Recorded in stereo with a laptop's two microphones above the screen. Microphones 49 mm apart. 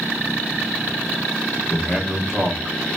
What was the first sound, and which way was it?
A man speaking, 10° left (ahead or behind).